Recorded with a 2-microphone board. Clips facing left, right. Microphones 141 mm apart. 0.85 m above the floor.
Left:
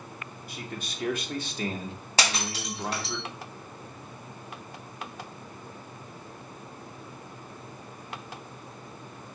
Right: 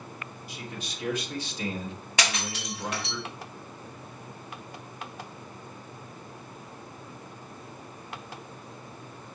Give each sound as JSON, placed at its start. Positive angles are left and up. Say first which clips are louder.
{"t": 0.5, "sound": "a man speaking", "louder": "left 2 dB", "side_deg": 55, "distance_m": 2.0}
{"t": 2.2, "sound": "breaking glass", "louder": "left 2 dB", "side_deg": 35, "distance_m": 3.5}